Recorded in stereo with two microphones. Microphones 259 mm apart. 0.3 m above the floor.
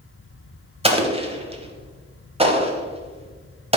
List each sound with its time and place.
0.8 s an explosion: 25° right (ahead or behind), 0.8 m